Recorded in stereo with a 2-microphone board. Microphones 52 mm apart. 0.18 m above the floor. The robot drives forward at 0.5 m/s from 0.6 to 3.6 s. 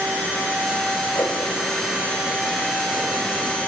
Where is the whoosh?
85° left, 4.5 m.